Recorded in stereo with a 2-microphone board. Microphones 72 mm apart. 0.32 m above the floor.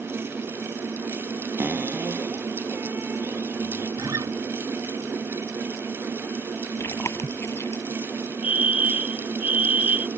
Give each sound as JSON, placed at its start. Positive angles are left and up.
{"t": 1.6, "sound": "a cupboard door", "side_deg": -30}
{"t": 4.0, "sound": "a guitar", "side_deg": -60}
{"t": 6.8, "sound": "chewing", "side_deg": 40}
{"t": 8.4, "sound": "a fire alarm", "side_deg": -20}